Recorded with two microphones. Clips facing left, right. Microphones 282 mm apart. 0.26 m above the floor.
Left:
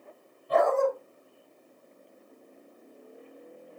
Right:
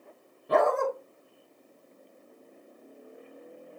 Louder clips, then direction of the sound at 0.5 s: Left 1 dB; 75° right (ahead or behind).